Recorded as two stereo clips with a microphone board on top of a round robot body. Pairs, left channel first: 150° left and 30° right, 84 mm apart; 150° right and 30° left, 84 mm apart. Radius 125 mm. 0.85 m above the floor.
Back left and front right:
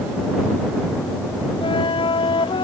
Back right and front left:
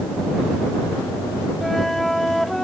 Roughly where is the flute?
Behind left.